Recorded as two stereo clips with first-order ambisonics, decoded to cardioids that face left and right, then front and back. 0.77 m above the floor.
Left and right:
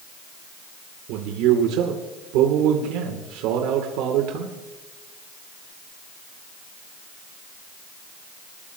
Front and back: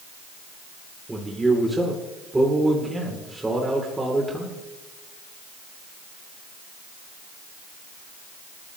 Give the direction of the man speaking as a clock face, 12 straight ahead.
3 o'clock.